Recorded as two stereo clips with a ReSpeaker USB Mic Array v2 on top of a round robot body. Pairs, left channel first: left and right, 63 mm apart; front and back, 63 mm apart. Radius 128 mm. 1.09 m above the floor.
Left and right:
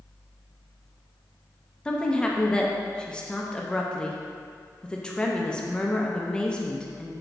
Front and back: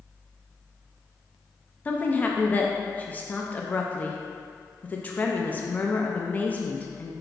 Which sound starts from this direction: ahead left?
A woman speaking, at 1.9 s.